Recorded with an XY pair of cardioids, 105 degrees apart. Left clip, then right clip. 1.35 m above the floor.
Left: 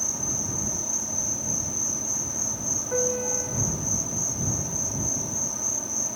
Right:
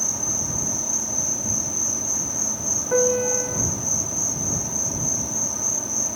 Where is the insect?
25° right.